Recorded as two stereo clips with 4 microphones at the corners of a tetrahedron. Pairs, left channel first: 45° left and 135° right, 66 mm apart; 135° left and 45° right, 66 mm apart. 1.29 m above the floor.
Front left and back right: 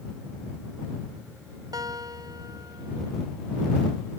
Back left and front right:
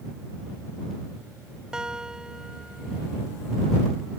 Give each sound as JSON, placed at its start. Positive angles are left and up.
{"t": 1.7, "sound": "a guitar", "azimuth_deg": -125}